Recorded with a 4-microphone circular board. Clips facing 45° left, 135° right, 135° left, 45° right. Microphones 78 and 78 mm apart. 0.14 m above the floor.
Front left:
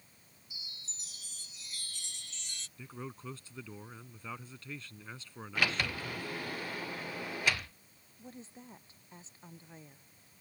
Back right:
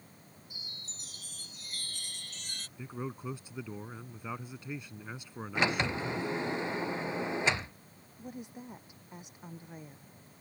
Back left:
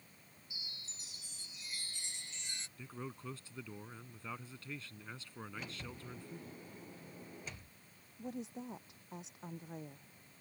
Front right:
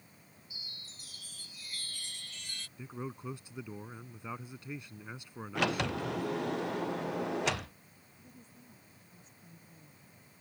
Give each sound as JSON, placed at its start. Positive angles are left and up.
{"t": 0.5, "sound": "a chime", "azimuth_deg": -160}
{"t": 2.8, "sound": "a man speaking", "azimuth_deg": -85}
{"t": 5.5, "sound": "a sliding door", "azimuth_deg": -70}
{"t": 8.2, "sound": "a woman speaking", "azimuth_deg": 145}